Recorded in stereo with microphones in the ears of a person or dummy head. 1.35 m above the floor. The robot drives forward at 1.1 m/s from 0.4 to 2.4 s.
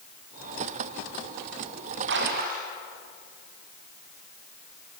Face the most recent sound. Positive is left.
turn(degrees=-50)  # may be behind; listen again after turning